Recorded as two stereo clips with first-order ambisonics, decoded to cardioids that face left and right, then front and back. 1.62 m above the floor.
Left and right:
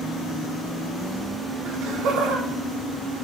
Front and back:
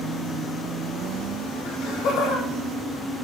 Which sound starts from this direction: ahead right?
Laughter, at 1.6 s.